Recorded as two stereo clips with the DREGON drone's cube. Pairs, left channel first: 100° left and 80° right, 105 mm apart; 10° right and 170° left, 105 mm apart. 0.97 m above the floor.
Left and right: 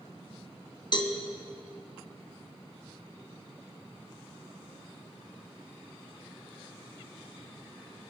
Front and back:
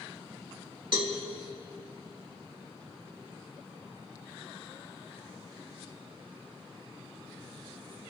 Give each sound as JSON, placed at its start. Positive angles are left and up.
{"t": 0.9, "sound": "a cowbell", "azimuth_deg": 130, "distance_m": 1.4}